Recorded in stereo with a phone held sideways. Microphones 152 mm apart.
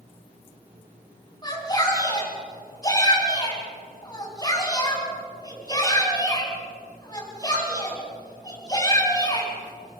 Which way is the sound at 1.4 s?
25° left (ahead or behind).